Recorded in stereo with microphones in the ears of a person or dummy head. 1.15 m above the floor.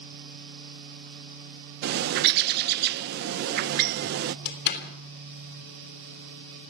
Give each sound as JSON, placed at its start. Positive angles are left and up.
{"t": 1.8, "sound": "a bird", "side_deg": -55, "distance_m": 0.7}
{"t": 4.5, "sound": "a door slam", "side_deg": 55, "distance_m": 3.0}